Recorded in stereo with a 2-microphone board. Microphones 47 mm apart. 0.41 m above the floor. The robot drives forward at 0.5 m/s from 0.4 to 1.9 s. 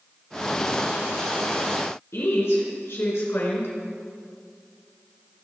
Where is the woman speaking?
70° left (ahead or behind), 5 m.